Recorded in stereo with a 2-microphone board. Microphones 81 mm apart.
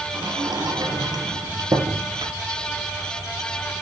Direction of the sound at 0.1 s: 55° right (ahead or behind).